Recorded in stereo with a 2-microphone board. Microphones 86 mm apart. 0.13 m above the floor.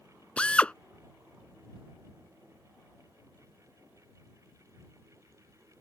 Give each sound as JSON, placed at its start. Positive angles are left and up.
{"t": 0.4, "sound": "a drill", "side_deg": 15}